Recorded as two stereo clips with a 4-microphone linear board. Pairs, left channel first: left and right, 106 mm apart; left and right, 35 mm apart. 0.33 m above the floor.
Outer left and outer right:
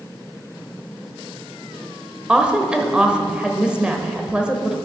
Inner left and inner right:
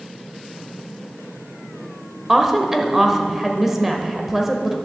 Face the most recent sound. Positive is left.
turn(degrees=-10)  # may be behind; listen again after turning